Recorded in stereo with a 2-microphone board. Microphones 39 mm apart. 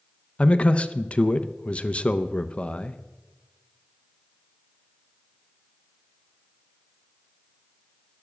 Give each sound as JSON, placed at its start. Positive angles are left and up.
{"t": 0.4, "sound": "a man speaking", "side_deg": 35, "distance_m": 0.6}